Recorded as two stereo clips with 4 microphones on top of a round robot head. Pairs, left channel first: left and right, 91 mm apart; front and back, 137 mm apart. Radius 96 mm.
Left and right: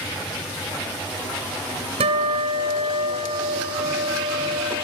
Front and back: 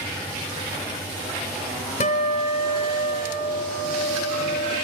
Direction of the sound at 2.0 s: 55° right.